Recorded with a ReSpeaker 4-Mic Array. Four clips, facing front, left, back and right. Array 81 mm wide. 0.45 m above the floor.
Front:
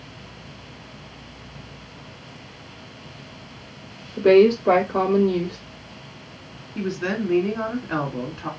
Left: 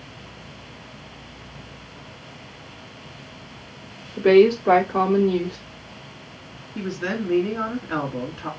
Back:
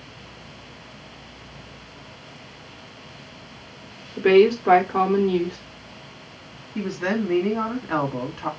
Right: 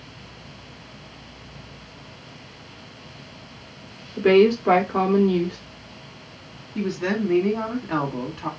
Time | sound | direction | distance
4.2 | a woman speaking | 160° right | 1.4 m
6.8 | a woman speaking | 160° right | 3 m